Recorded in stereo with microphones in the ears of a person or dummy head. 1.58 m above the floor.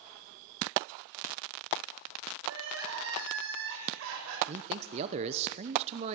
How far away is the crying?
About 7 m.